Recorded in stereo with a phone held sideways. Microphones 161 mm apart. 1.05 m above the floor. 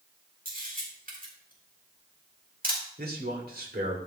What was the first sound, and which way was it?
A camera shutter, 65° right (ahead or behind).